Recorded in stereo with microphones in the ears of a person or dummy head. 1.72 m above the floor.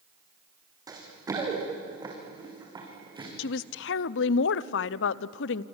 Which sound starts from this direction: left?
A woman speaking, at 3.4 s.